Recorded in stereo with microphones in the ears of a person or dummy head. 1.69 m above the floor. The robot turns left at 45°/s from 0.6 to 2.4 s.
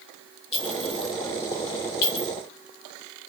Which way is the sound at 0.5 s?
20° left (ahead or behind).